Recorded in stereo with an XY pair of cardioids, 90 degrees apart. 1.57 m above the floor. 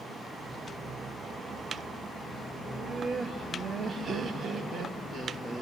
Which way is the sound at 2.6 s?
50° right.